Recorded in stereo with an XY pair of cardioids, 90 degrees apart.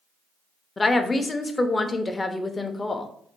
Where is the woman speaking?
30° left, 0.7 m.